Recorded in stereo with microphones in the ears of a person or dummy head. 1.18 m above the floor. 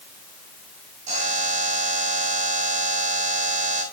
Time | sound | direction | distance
1.1 | a buzzer | 40° right (ahead or behind) | 6.5 m